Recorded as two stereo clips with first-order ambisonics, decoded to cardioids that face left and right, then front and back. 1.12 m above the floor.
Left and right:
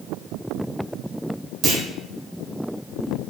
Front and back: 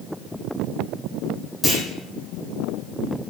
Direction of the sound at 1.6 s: 95° right.